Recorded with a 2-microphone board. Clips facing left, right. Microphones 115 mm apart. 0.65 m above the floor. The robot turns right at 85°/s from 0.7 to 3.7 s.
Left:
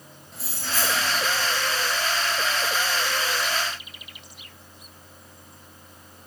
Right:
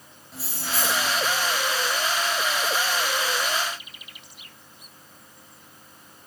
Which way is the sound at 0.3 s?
Straight ahead.